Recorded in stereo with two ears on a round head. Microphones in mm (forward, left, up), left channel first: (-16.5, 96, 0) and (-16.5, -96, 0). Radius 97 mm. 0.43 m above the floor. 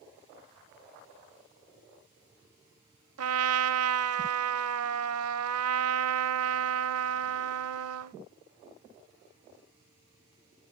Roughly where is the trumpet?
Right.